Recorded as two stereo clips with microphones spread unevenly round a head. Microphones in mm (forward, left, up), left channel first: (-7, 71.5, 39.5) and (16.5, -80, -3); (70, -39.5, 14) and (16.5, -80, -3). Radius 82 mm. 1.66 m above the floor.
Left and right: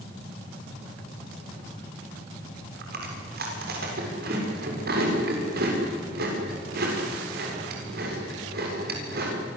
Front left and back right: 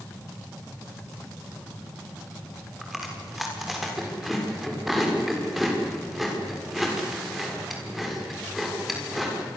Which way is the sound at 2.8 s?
55° right.